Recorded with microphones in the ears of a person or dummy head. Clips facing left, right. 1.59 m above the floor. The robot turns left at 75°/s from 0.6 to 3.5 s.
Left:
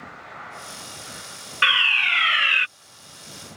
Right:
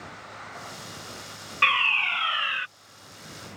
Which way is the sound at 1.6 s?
5° left (ahead or behind).